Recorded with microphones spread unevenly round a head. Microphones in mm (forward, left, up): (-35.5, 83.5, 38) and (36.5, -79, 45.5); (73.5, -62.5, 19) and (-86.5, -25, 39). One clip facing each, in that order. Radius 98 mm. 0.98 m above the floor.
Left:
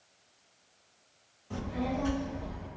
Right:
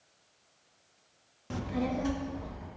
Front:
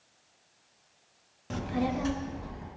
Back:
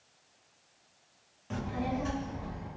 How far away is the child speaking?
About 0.8 m.